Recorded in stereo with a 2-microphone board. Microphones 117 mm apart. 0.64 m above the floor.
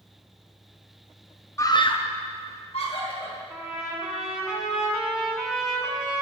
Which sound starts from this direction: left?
A scream, at 1.6 s.